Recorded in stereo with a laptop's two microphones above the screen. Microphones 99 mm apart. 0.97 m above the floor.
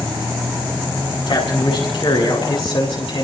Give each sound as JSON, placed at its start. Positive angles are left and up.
{"t": 1.3, "sound": "a man speaking", "side_deg": 70, "distance_m": 8.0}